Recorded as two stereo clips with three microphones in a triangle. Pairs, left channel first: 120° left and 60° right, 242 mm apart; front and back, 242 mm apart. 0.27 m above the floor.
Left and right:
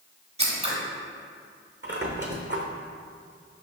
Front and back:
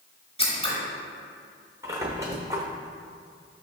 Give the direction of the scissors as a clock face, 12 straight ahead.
1 o'clock.